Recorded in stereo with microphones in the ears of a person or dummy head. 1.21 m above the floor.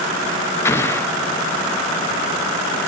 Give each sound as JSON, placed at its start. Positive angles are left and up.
{"t": 0.7, "sound": "an explosion", "side_deg": 10, "distance_m": 0.6}